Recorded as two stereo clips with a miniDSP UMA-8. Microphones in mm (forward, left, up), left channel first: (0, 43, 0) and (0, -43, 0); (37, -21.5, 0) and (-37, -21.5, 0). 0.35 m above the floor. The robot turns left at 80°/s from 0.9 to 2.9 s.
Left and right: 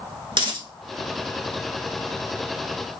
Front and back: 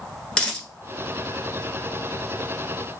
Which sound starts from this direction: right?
A dropped coin, at 0.3 s.